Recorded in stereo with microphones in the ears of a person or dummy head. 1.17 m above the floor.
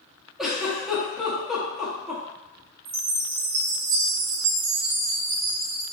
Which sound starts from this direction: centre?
A giggle, at 0.4 s.